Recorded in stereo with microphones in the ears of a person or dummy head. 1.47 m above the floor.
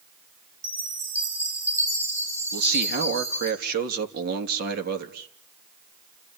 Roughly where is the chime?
Centre.